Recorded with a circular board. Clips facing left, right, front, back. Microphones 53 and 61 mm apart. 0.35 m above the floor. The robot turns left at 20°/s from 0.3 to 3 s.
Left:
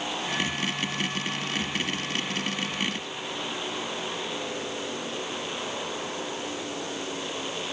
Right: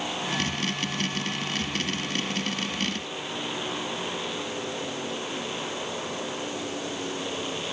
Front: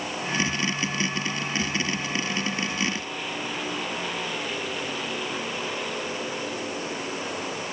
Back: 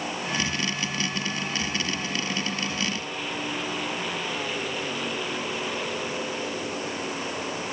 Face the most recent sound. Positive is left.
No sound to turn to.